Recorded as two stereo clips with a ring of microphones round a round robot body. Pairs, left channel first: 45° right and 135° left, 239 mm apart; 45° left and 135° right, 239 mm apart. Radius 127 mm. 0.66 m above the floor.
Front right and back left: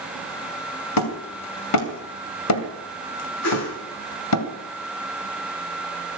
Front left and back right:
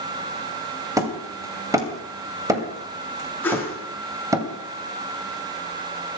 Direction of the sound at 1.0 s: 60° right.